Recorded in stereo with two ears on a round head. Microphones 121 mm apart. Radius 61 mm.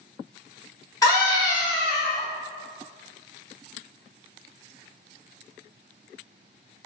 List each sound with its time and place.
1.0 s a scream: 30° left (ahead or behind), 1.7 m